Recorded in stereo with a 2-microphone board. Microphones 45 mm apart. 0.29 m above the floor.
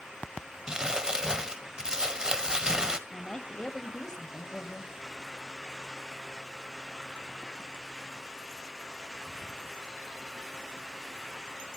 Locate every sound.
0.7 s crumpling: 15° right (ahead or behind), 1.2 m
3.1 s a woman speaking: 15° left (ahead or behind), 1.3 m